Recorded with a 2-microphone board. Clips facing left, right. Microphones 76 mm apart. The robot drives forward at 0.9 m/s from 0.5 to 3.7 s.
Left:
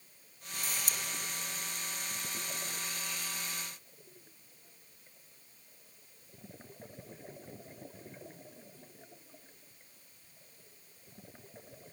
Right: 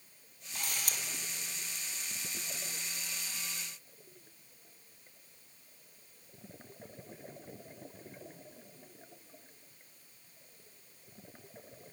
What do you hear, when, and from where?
0.6 s a camera shutter: 55° right (ahead or behind), 4 m